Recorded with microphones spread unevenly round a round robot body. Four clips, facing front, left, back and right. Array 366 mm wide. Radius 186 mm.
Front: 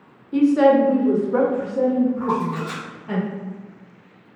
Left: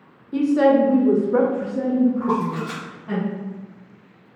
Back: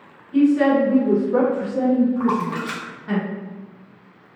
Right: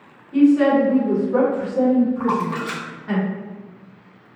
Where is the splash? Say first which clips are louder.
Right 1 dB, back 1 dB; 145° right, 0.9 m.